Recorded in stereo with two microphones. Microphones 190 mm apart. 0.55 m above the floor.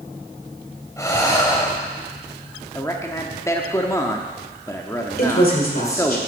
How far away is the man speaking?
About 0.8 m.